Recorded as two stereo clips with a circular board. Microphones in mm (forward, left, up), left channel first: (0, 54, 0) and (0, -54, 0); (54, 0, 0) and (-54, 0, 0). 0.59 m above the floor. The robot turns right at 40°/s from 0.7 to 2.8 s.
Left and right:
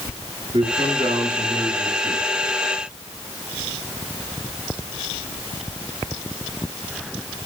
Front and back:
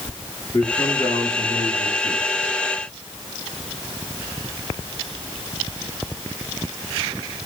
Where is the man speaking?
60° right, 9 m; by 2.2 s straight ahead, 9 m.